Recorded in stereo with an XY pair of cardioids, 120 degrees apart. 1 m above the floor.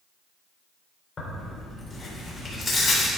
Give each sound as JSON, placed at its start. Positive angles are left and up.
{"t": 1.2, "sound": "tearing paper", "azimuth_deg": 35, "distance_m": 3.0}